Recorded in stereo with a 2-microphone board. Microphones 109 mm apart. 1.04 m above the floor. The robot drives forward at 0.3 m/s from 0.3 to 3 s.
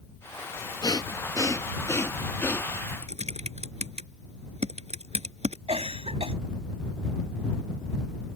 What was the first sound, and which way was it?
Breathing, 35° left (ahead or behind).